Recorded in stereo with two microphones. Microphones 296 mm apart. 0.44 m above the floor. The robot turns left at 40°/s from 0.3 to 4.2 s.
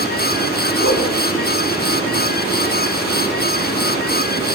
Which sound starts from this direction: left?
A whoosh, at 0.8 s.